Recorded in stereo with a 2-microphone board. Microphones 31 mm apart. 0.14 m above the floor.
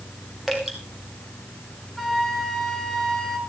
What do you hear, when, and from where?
0.5 s dripping: 5° right (ahead or behind), 4 m
2.0 s a flute: 5° left (ahead or behind), 2.5 m